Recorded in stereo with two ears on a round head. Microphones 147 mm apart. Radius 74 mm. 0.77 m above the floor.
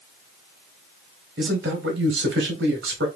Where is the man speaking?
75° right (ahead or behind), 2.5 m.